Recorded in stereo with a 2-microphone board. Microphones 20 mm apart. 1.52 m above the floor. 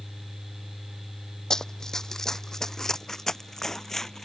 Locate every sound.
1.5 s running footsteps: 30° left (ahead or behind); by 4.2 s 20° left (ahead or behind)